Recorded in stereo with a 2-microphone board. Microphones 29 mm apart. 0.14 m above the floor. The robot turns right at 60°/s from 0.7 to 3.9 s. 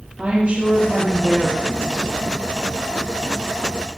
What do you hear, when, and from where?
0.2 s a woman speaking: 125° right, 5 m; by 2.5 s 15° right, 5 m